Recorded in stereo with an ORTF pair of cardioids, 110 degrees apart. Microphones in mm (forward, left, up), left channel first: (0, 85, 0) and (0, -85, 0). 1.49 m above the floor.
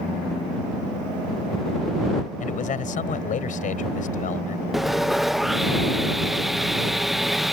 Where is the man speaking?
50° left.